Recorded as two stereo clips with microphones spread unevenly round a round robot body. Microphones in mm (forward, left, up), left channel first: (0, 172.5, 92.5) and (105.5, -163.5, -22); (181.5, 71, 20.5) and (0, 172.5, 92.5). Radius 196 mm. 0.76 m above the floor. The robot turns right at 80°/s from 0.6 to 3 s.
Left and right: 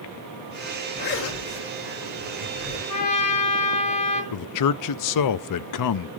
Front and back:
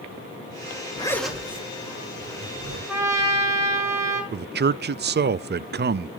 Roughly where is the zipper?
Ahead left.